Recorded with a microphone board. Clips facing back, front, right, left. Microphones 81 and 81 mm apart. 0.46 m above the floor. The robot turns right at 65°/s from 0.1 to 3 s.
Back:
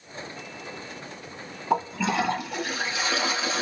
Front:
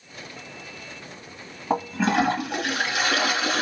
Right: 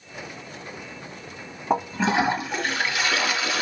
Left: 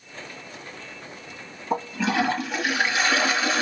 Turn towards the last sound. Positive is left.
turn(degrees=30)